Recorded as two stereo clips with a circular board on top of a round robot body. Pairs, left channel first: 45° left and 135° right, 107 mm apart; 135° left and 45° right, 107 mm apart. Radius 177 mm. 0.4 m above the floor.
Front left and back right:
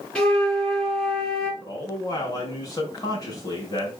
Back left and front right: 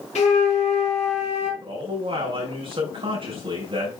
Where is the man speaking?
10° right, 4 m.